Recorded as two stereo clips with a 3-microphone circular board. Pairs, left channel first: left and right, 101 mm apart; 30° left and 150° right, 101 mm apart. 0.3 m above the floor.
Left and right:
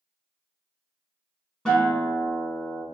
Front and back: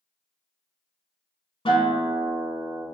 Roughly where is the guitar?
Ahead.